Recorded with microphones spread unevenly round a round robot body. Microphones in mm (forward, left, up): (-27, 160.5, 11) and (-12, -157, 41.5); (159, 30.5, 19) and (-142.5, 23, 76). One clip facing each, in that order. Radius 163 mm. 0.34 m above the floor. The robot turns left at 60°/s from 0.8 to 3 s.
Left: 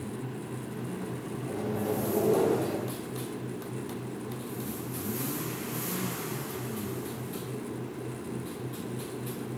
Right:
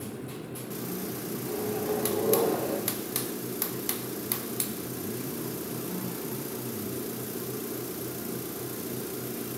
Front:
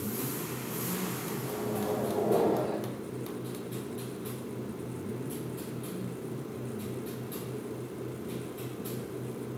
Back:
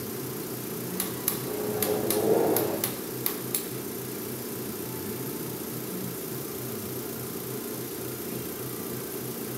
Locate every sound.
1.4 s a microwave: straight behind, 6.5 m; by 2.8 s 100° left, 6.5 m